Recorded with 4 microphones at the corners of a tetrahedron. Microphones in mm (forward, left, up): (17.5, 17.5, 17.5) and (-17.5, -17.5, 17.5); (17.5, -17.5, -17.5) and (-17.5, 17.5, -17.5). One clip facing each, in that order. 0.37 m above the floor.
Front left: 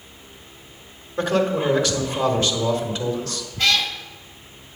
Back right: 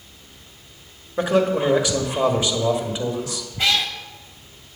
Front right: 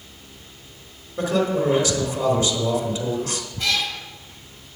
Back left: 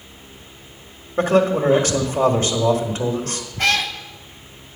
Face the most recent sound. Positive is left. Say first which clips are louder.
# front left 1 dB, back left 5 dB
turn(degrees=155)